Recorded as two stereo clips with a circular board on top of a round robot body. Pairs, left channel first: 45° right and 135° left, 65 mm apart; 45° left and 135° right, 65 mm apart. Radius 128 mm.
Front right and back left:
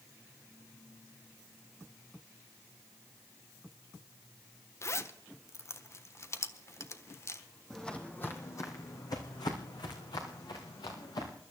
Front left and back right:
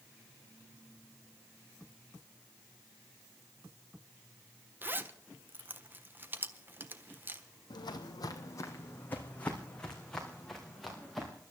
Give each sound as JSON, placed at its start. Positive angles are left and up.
{"t": 4.8, "sound": "a zipper", "azimuth_deg": -80, "distance_m": 1.3}
{"t": 7.7, "sound": "footsteps", "azimuth_deg": 40, "distance_m": 1.6}